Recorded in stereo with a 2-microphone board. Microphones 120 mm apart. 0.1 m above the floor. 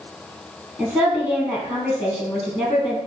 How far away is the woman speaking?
About 2.5 m.